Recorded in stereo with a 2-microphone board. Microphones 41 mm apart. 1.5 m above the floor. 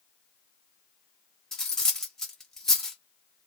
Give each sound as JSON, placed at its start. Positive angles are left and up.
{"t": 1.5, "sound": "cutlery clinking", "side_deg": 10, "distance_m": 0.8}